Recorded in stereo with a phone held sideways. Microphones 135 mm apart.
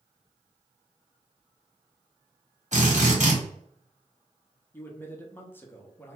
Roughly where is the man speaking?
Centre.